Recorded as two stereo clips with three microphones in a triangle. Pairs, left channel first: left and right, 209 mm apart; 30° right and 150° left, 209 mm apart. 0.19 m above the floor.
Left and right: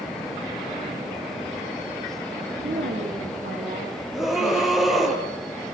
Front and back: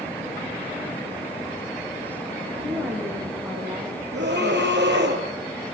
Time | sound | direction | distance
2.6 | a woman speaking | 130° right | 7 m
4.1 | a scream | straight behind | 4.5 m